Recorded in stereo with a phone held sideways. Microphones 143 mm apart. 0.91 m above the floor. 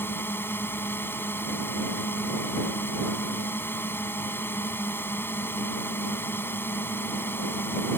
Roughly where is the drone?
Centre.